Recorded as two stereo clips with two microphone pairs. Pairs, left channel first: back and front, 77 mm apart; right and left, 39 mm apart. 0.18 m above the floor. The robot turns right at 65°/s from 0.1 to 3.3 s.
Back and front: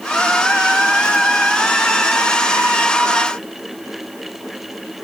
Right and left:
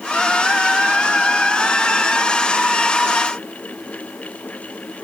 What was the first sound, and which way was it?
Only background noise.